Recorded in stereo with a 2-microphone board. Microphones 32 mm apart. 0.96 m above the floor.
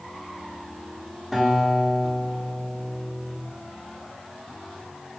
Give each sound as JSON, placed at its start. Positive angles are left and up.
{"t": 1.3, "sound": "a guitar", "side_deg": 5, "distance_m": 1.0}